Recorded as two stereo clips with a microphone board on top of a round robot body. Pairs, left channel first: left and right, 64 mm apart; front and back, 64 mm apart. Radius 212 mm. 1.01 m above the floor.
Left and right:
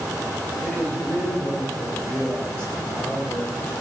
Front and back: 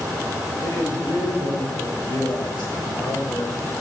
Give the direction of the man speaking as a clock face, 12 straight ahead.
11 o'clock.